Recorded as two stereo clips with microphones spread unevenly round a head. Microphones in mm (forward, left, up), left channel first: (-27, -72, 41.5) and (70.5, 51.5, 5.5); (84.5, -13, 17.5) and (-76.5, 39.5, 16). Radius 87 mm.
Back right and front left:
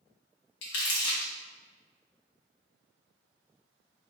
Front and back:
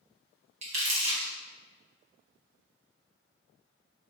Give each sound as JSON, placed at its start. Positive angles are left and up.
{"t": 0.6, "sound": "crumpling", "azimuth_deg": -145, "distance_m": 1.2}